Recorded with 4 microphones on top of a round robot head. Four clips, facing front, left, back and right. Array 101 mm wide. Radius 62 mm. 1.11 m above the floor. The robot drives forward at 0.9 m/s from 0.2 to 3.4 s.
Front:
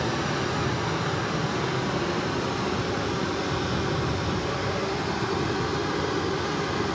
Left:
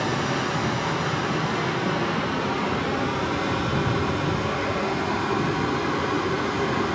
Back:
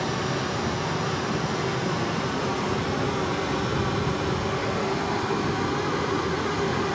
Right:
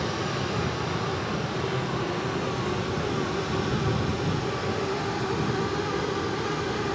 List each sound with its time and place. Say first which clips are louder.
0.0 s running water: left 4 dB, even; 90° left, 5.5 m; by 7.0 s 120° left, 6.5 m